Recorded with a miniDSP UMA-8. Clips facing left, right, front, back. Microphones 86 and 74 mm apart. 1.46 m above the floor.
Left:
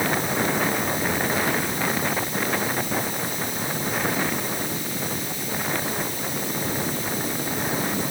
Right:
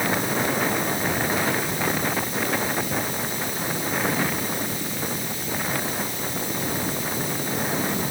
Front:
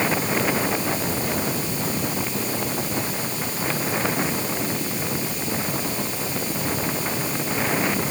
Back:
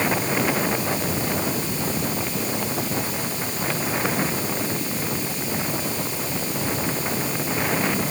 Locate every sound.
Only background noise.